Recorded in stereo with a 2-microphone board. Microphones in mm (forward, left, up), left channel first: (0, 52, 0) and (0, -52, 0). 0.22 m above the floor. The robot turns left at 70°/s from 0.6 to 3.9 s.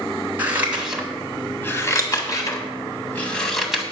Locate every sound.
0.4 s scissors: 15° right (ahead or behind), 1.6 m; by 3.8 s 10° right (ahead or behind), 1.6 m